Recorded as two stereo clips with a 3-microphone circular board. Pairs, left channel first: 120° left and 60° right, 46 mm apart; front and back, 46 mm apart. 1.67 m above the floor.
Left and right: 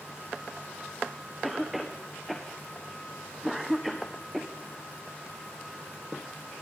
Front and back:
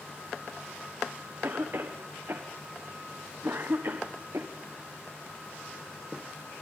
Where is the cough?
145° right, 1.3 m.